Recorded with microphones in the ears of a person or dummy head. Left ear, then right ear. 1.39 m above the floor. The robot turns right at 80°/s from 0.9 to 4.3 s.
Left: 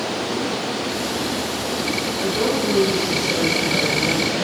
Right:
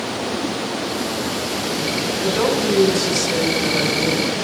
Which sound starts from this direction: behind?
A woman speaking, at 2.2 s.